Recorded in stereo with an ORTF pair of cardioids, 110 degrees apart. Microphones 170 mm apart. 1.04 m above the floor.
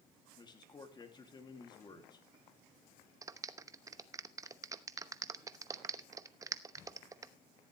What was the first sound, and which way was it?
A man speaking, 25° left.